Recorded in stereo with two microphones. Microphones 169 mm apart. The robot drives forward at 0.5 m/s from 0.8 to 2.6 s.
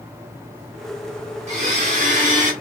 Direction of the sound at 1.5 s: 45° right (ahead or behind).